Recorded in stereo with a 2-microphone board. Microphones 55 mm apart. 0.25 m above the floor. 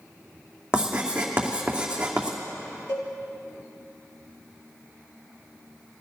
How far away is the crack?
No crack in this recording.